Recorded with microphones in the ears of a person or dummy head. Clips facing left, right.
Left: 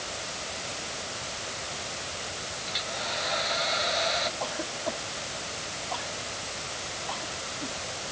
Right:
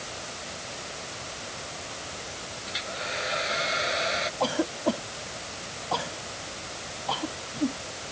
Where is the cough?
75° right (ahead or behind).